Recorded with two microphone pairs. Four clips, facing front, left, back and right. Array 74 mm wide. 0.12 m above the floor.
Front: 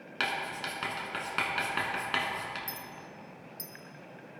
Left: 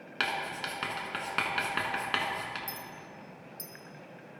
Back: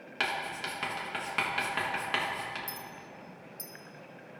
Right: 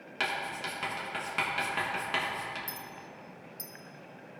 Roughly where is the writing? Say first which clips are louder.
Left 1 dB, even; left.